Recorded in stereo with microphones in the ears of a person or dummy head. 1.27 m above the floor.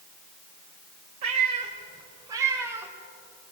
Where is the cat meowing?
45° right (ahead or behind), 2.0 m; by 2.9 s 10° right (ahead or behind), 1.8 m.